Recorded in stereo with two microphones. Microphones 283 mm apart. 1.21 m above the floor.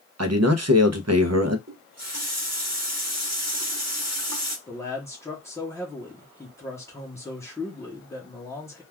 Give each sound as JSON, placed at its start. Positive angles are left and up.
{"t": 0.2, "sound": "a man speaking", "side_deg": -65, "distance_m": 0.6}
{"t": 1.7, "sound": "a running tap", "side_deg": -60, "distance_m": 0.9}
{"t": 4.7, "sound": "a man speaking", "side_deg": 10, "distance_m": 0.8}